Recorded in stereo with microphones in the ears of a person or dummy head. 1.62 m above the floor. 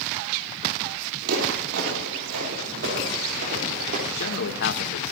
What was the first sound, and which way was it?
Footsteps, 60° right (ahead or behind).